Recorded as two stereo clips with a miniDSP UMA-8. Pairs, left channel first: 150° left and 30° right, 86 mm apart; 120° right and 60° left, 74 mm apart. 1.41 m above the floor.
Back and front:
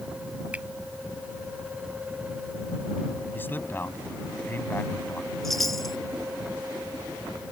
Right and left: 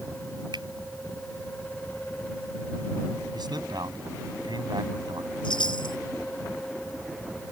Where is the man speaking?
85° left.